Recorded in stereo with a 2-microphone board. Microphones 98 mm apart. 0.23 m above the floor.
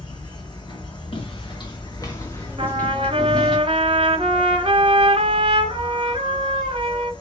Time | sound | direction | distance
0.0 | an insect | 50° left (ahead or behind) | 1.1 m
1.1 | footsteps | 65° left (ahead or behind) | 1.3 m
2.6 | a trumpet | 70° right (ahead or behind) | 0.8 m